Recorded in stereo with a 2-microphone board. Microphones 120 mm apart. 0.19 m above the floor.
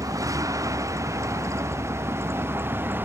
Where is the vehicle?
30° right (ahead or behind); by 3.0 s 20° right (ahead or behind).